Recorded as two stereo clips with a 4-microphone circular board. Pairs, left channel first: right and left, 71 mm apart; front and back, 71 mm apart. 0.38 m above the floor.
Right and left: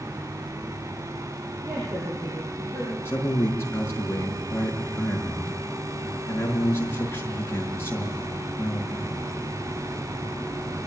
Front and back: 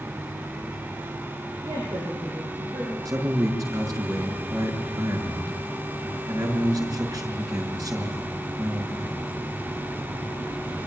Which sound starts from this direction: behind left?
A woman speaking, at 1.6 s.